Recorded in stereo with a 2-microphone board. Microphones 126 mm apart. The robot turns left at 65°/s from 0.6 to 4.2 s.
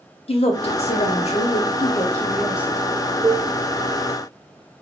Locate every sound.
0.3 s a woman speaking: 120° left, 0.7 m; by 2.8 s 25° right, 0.7 m
3.2 s dishes clattering: 60° right (ahead or behind), 1.2 m; by 3.5 s 55° right (ahead or behind), 1.2 m